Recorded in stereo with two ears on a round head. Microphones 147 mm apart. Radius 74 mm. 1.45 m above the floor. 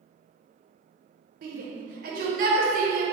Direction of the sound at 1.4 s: 55° right (ahead or behind).